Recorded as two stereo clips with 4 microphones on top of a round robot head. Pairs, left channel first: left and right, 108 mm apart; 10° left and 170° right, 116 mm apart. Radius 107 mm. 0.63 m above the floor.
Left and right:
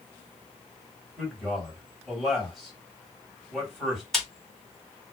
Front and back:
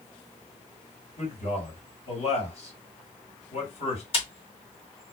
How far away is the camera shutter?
About 1.8 m.